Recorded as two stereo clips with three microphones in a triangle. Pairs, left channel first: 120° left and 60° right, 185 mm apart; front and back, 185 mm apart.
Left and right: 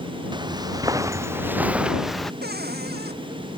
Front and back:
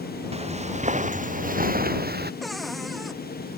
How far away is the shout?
No shout in this recording.